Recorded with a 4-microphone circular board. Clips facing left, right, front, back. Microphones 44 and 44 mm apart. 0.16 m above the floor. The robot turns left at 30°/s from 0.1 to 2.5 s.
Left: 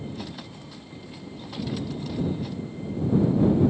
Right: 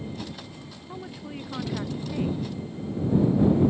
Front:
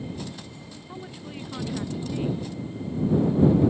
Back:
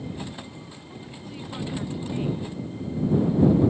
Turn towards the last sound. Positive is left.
turn(degrees=-105)